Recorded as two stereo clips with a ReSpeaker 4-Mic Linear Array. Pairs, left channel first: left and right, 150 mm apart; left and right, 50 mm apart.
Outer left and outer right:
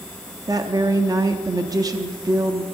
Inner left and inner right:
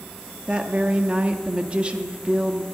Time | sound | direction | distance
0.5 | a woman speaking | 25° right (ahead or behind) | 0.7 m